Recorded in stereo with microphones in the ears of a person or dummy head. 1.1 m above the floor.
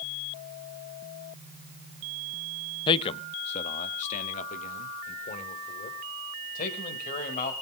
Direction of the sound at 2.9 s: 25° left (ahead or behind).